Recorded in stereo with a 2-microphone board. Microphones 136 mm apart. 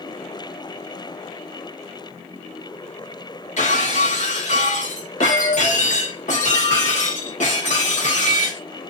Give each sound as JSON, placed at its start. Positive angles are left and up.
{"t": 3.6, "sound": "breaking glass", "side_deg": 65, "distance_m": 1.2}